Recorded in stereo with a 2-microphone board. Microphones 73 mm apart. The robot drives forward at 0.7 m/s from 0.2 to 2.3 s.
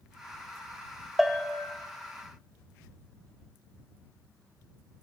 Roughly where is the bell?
Centre.